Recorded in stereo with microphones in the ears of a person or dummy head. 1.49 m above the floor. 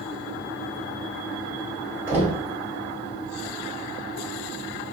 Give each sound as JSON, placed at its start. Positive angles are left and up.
{"t": 2.1, "sound": "knocking", "side_deg": -10, "distance_m": 2.5}